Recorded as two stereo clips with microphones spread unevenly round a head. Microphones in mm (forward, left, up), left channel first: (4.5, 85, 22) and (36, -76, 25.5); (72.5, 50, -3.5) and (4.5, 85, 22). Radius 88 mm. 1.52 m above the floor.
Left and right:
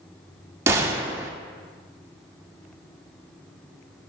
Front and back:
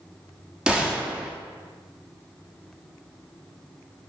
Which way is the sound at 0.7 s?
150° right.